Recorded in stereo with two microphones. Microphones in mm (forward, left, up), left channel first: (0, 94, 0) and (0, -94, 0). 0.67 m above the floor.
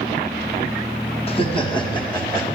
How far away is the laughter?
About 0.9 m.